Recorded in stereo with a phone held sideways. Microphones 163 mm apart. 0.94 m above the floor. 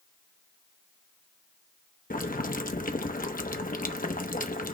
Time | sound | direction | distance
2.1 | boiling | 60° left (ahead or behind) | 0.8 m